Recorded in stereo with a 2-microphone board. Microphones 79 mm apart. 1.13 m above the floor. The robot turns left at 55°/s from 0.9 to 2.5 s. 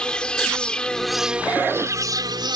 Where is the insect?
10° left; by 2.6 s 75° right.